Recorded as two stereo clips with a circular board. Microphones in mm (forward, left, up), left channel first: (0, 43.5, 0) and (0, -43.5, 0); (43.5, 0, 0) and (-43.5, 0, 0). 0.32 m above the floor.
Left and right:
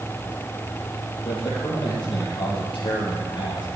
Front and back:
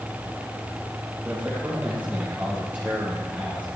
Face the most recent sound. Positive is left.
turn(degrees=105)